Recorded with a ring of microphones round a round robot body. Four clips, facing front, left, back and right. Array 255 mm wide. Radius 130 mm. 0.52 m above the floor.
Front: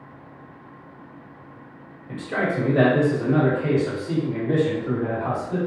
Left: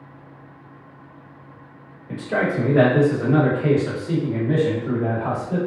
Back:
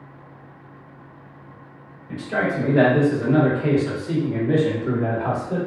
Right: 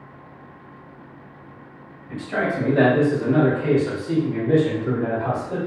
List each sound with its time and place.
2.1 s a man speaking: 75° left, 1.6 m; by 5.6 s 165° right, 1.3 m